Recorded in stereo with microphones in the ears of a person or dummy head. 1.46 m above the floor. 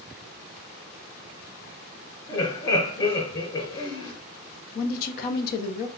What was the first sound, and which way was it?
Laughter, 30° left (ahead or behind).